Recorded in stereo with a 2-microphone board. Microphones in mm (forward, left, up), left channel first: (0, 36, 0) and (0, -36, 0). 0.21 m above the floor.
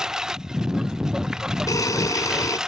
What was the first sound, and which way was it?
A lawn mower, 10° right (ahead or behind).